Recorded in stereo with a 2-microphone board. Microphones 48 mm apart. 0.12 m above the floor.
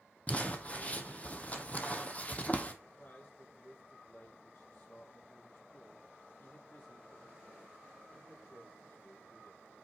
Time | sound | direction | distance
0.3 | crumpling | 30° left (ahead or behind) | 1.1 m
2.8 | a man speaking | 45° left (ahead or behind) | 3.5 m